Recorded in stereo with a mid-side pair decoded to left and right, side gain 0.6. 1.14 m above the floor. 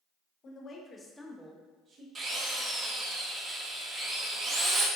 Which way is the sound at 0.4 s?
45° left.